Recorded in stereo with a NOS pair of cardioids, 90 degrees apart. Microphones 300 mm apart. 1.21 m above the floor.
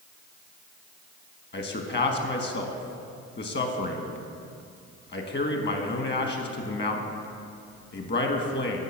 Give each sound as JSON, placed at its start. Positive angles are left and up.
{"t": 1.5, "sound": "a man speaking", "azimuth_deg": 35, "distance_m": 1.3}